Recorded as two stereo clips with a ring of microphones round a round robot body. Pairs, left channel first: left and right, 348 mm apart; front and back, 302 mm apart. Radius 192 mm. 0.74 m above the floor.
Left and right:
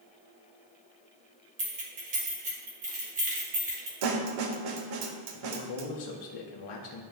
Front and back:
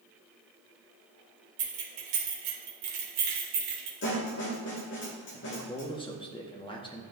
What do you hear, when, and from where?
1.6 s keys jangling: 160° right, 1.6 m
4.0 s a snare drum: 60° right, 1.0 m
5.3 s a man speaking: 75° left, 1.1 m